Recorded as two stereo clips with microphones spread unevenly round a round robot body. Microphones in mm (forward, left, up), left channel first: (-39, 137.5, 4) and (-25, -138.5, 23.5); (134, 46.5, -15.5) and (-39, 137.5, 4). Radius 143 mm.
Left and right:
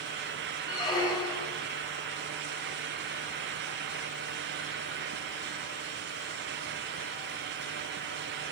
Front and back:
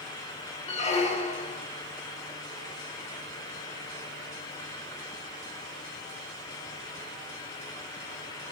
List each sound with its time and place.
0.7 s a squeak: 20° left, 0.6 m